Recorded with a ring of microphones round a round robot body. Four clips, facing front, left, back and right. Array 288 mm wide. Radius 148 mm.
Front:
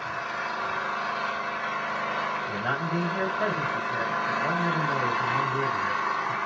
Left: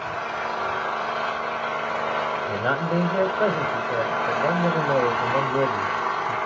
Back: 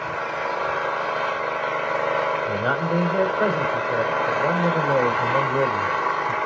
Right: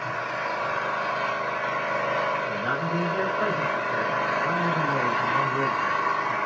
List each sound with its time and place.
0.0 s an engine running: 165° left, 2.0 m
2.5 s a man speaking: 150° left, 2 m